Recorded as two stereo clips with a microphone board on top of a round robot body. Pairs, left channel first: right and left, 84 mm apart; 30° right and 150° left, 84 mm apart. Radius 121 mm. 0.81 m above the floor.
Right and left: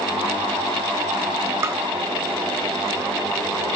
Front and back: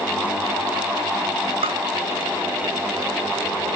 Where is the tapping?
150° left.